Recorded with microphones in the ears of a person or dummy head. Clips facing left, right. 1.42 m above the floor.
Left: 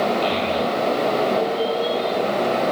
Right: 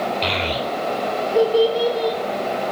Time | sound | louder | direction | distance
0.2 | a child speaking | left 3 dB | 75° right (ahead or behind) | 4 m